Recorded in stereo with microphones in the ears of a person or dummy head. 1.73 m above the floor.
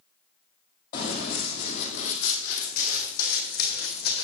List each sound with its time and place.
0.9 s running footsteps: 40° left (ahead or behind), 2.5 m; by 4.2 s 65° left (ahead or behind), 4.5 m